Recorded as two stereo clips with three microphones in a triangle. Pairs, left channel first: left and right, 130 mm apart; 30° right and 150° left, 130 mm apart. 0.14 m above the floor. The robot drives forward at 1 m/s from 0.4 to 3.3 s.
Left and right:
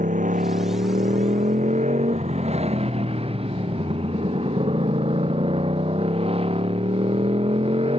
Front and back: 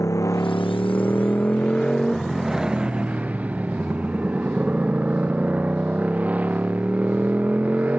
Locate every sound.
0.0 s a motorcycle: 95° right; by 8.0 s 130° right